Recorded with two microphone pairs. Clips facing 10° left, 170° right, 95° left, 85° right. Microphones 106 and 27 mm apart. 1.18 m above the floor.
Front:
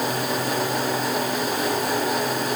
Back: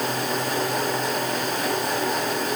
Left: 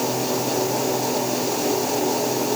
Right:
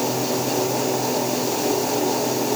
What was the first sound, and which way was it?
Only background noise.